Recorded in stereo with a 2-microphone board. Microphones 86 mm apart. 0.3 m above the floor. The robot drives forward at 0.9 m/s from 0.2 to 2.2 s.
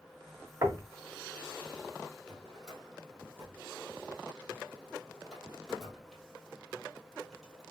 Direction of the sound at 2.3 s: Centre (ahead or behind).